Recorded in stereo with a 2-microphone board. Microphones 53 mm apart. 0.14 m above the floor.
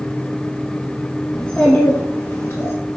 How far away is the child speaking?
About 0.7 m.